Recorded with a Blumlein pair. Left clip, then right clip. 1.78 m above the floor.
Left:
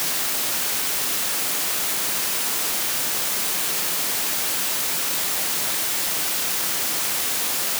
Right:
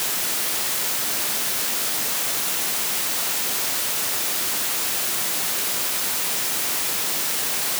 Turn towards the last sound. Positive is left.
No sound to turn to.